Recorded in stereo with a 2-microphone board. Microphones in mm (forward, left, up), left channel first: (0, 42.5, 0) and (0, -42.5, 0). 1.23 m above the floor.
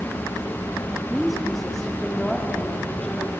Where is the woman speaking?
5° right (ahead or behind), 3 m; by 3.3 s 20° left (ahead or behind), 4.5 m.